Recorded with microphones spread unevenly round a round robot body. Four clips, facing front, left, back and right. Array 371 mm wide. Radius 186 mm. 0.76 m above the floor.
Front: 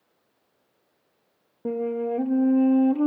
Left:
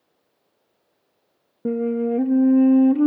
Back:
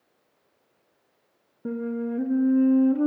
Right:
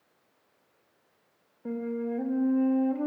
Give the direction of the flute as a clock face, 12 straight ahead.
9 o'clock.